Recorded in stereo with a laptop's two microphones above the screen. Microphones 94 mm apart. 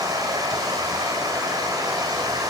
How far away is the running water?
About 1.8 m.